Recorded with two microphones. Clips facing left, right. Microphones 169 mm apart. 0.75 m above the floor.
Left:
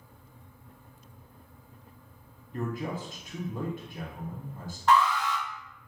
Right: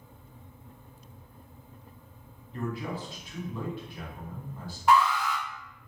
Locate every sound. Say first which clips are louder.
2.5 s a man speaking: left 1 dB; 45° left (ahead or behind), 0.9 m
4.9 s an alarm: right 1 dB; 10° right (ahead or behind), 0.7 m